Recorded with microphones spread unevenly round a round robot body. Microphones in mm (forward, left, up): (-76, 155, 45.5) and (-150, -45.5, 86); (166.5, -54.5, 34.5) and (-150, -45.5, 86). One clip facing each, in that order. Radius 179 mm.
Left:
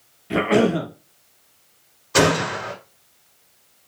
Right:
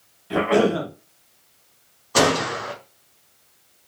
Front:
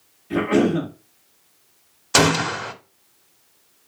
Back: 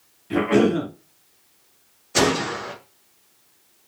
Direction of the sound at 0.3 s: 90° left.